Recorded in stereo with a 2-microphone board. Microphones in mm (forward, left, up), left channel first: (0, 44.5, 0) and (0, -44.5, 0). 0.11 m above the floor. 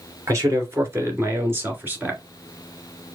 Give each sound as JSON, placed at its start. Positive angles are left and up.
{"t": 0.3, "sound": "a man speaking", "side_deg": -35, "distance_m": 2.0}